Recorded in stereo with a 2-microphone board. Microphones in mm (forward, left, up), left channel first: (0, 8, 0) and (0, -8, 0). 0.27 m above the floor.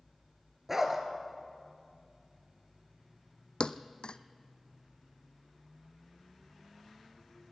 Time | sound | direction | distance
0.7 | a dog barking | 20° right (ahead or behind) | 2.5 m
3.6 | a thud | 65° left (ahead or behind) | 0.7 m